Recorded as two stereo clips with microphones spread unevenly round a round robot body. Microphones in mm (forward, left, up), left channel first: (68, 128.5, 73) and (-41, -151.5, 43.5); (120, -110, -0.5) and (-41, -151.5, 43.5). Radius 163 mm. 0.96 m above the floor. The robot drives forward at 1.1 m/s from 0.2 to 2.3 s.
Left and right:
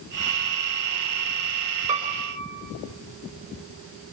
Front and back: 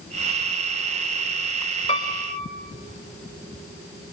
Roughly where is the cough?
I don't hear a cough.